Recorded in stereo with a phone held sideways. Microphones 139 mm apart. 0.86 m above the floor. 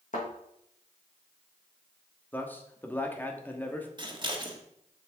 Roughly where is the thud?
Left.